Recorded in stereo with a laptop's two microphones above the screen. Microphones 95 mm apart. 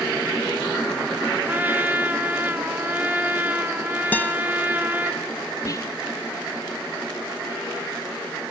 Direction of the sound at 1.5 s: 20° right (ahead or behind).